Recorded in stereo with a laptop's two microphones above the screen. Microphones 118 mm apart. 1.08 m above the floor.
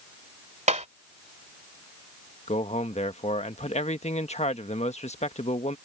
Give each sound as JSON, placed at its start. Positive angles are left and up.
{"t": 0.7, "sound": "tapping", "side_deg": -80}
{"t": 2.5, "sound": "a man speaking", "side_deg": 70}